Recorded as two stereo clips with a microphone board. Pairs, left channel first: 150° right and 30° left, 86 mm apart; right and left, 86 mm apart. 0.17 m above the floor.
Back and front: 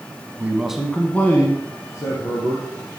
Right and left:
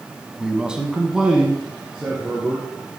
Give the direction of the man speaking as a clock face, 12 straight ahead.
11 o'clock.